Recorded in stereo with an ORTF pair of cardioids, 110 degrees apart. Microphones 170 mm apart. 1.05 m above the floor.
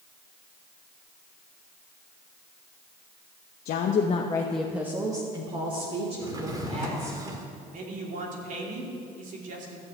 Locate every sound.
3.6 s a woman speaking: 70° left, 1.0 m; by 7.2 s 40° right, 3.5 m
6.2 s a drawer: 20° right, 1.5 m
7.7 s a man speaking: 50° right, 2.5 m